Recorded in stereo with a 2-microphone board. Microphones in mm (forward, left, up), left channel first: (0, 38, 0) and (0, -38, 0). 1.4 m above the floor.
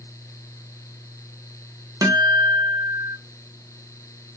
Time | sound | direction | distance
2.0 | a guitar | 60° right (ahead or behind) | 0.6 m